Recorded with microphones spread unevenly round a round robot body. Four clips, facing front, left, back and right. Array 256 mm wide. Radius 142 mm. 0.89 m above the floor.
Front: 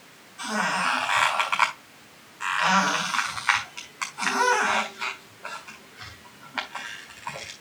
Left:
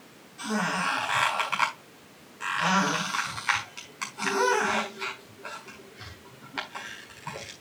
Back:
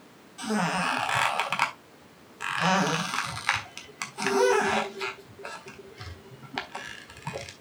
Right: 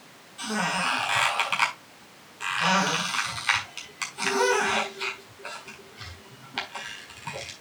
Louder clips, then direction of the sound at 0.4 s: Even, front 1 dB; 175° left.